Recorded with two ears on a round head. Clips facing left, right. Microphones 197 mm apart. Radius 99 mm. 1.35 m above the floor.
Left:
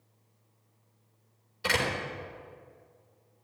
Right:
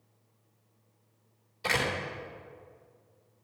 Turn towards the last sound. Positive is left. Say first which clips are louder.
# left 1 dB
turn(degrees=10)  # may be behind; listen again after turning